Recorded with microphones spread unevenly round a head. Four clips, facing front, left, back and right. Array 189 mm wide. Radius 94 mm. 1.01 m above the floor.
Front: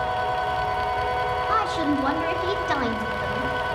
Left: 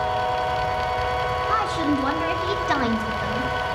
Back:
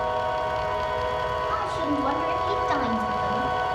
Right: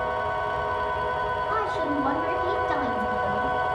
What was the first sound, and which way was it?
A woman speaking, 50° left.